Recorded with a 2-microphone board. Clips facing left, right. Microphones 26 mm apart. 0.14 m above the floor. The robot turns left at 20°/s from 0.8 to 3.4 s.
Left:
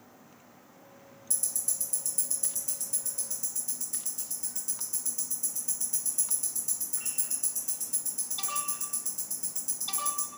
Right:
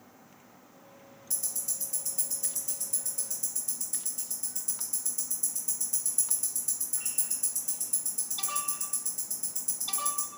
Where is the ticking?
15° right (ahead or behind), 1.8 m; by 10.3 s 10° left (ahead or behind), 1.8 m.